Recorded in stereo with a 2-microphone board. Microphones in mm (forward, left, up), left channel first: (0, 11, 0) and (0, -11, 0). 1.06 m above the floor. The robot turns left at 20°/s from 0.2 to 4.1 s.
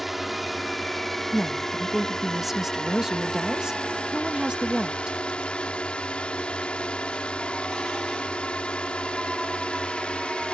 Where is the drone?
175° right; by 10.5 s 110° left.